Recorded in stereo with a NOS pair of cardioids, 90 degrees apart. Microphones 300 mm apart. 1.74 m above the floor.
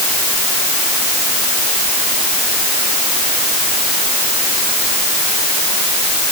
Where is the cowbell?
I don't hear a cowbell.